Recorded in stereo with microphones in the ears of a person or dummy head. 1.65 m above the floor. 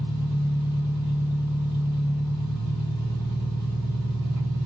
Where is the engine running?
20° left (ahead or behind), 2.5 m.